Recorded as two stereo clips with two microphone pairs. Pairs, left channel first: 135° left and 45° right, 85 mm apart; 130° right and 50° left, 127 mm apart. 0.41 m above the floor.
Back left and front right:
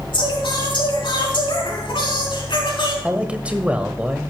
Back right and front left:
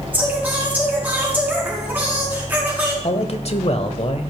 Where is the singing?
125° left, 5 m.